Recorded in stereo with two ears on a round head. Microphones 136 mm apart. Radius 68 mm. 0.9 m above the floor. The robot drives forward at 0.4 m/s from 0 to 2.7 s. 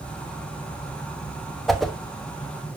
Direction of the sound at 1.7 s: Centre (ahead or behind).